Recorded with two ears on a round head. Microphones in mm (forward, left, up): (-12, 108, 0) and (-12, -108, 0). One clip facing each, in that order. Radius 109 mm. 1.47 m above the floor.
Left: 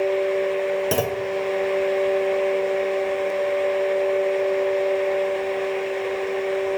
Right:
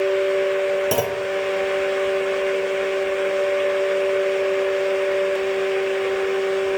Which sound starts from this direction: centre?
A clunk, at 0.9 s.